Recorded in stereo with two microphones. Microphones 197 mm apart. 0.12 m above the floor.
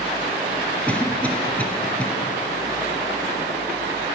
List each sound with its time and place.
0.9 s a cough: 5° left (ahead or behind), 1.6 m